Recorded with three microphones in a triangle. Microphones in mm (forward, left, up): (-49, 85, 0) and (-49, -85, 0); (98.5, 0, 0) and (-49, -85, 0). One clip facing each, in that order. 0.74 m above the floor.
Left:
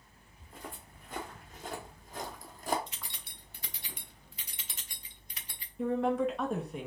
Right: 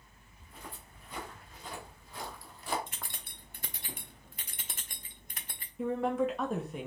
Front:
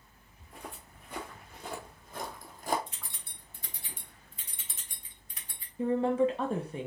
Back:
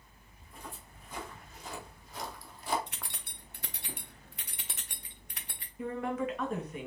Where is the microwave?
I don't hear a microwave.